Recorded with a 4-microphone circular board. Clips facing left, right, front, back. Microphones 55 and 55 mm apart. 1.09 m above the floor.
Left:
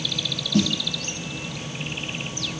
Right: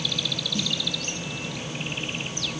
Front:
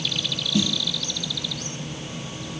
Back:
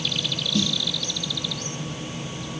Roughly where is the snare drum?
Left.